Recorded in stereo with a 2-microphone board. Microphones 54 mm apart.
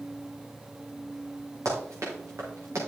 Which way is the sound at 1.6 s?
85° right.